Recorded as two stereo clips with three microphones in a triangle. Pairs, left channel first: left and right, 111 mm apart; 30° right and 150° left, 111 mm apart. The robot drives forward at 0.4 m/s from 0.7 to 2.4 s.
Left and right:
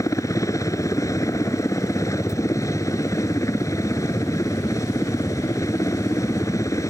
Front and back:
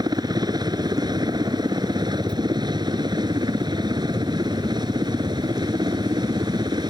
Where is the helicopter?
130° left; by 6.9 s 135° left.